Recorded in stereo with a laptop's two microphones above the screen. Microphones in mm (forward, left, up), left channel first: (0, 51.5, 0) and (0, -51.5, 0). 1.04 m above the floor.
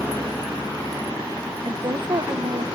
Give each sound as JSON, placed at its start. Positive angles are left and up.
{"t": 1.6, "sound": "a woman speaking", "side_deg": -40, "distance_m": 0.5}